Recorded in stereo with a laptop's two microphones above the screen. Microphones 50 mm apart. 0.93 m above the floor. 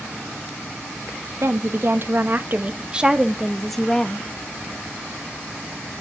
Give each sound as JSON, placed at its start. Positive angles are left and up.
{"t": 1.4, "sound": "a woman speaking", "side_deg": -60, "distance_m": 1.3}